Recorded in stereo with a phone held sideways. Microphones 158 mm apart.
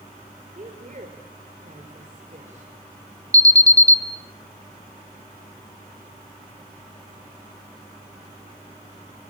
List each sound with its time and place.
0.6 s a woman speaking: 50° right (ahead or behind), 3.5 m
3.3 s an alarm: 20° right (ahead or behind), 1.6 m